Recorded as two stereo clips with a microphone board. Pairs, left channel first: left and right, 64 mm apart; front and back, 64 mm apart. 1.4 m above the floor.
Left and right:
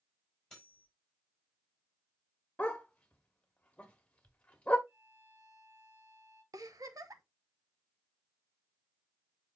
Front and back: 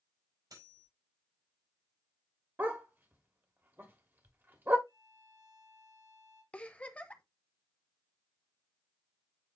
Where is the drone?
No drone in this recording.